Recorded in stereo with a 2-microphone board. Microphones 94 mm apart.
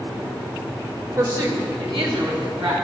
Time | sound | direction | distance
1.2 | a woman speaking | 35° right (ahead or behind) | 1.0 m